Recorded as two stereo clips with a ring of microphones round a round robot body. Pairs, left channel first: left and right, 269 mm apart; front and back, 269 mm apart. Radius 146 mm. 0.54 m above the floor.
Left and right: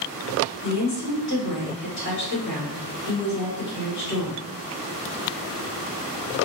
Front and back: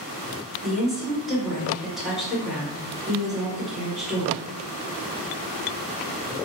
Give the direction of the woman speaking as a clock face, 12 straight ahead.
9 o'clock.